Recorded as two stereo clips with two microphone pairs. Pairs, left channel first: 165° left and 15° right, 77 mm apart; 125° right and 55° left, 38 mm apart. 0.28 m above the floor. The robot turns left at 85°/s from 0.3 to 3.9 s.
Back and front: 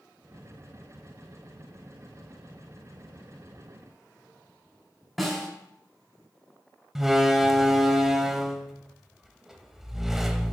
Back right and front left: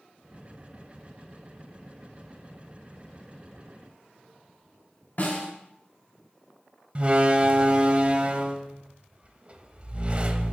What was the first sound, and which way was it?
A snare drum, 100° right.